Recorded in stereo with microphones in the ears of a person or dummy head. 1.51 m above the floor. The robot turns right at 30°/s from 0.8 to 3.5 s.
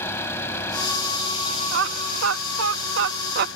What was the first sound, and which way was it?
An engine running, 20° left.